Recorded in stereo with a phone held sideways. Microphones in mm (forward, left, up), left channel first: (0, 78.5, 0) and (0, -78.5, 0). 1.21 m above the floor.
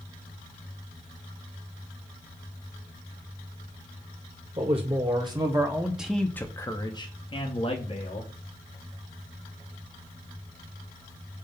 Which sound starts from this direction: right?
A man speaking, at 4.6 s.